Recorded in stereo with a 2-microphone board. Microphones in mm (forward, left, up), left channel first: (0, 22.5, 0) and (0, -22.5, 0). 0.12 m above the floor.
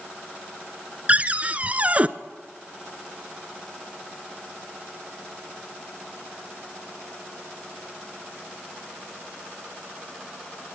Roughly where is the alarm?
I don't hear an alarm.